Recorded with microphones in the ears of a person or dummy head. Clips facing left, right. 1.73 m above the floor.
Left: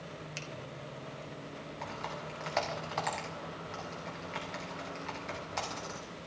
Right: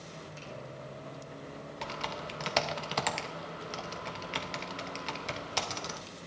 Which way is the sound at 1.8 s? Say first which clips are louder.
Right 3 dB; 45° right (ahead or behind).